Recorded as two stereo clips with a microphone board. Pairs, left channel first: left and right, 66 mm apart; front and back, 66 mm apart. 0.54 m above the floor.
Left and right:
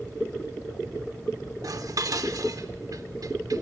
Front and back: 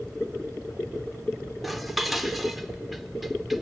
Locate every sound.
1.6 s dishes clattering: 90° right, 0.8 m